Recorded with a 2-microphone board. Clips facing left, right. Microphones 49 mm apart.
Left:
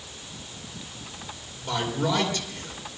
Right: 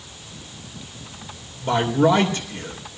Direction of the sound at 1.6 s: 30° right (ahead or behind).